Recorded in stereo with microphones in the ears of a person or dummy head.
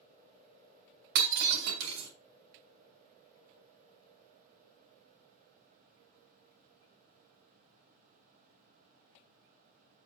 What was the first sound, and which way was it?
Breaking glass, 65° right (ahead or behind).